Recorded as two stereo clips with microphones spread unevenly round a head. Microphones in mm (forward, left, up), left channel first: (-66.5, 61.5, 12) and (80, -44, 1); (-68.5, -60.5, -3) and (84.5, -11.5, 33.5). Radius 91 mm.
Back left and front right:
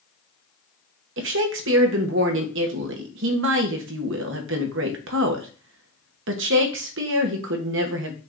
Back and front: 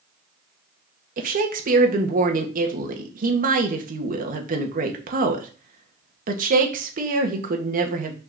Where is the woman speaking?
15° right, 1.0 m.